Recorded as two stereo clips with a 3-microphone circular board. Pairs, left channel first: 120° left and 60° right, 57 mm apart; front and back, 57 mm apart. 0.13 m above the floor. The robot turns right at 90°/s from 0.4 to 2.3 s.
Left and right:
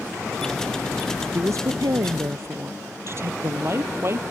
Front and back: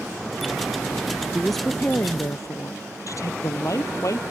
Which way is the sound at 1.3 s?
105° right.